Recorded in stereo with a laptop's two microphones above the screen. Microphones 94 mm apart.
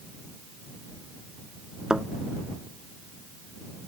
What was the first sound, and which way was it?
A thud, 5° right (ahead or behind).